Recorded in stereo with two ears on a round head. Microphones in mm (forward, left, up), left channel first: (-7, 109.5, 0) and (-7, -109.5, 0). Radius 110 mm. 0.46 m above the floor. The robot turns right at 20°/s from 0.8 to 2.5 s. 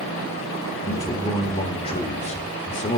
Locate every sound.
0.9 s a man speaking: 20° left, 1.5 m; by 3.0 s 55° left, 1.5 m